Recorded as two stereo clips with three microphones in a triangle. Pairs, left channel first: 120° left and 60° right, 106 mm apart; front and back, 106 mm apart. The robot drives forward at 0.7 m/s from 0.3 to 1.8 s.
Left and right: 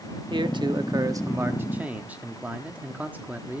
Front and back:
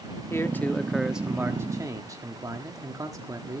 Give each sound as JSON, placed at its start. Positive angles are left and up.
{"t": 0.3, "sound": "a man speaking", "azimuth_deg": -55, "distance_m": 1.1}